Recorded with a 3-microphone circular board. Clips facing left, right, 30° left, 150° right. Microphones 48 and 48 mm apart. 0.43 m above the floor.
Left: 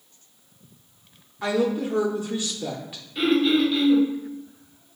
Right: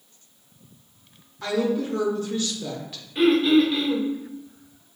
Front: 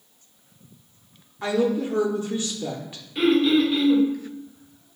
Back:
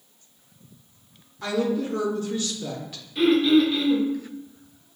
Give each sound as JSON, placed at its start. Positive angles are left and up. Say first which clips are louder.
{"t": 1.4, "sound": "a woman speaking", "louder": "left 1 dB, front 2 dB", "azimuth_deg": 45, "distance_m": 0.7}
{"t": 3.1, "sound": "throat clearing", "louder": "right 3 dB, back 1 dB", "azimuth_deg": -25, "distance_m": 1.7}